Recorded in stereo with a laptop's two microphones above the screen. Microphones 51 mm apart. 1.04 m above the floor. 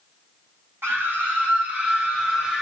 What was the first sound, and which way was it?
A scream, 50° right (ahead or behind).